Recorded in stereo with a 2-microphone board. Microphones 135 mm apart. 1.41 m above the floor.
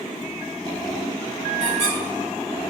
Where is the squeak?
15° right (ahead or behind), 1.7 m.